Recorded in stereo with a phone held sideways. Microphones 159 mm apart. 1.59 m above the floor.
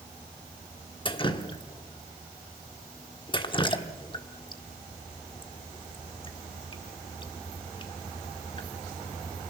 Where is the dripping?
30° left (ahead or behind), 1.3 m.